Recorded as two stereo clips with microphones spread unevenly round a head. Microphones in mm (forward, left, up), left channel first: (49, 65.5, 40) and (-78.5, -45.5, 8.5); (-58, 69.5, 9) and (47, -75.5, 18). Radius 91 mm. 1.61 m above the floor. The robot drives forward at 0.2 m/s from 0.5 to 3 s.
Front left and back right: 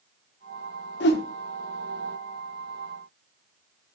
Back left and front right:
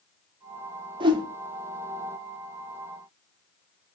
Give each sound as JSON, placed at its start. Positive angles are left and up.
{"t": 1.0, "sound": "a whoosh", "azimuth_deg": 10, "distance_m": 0.6}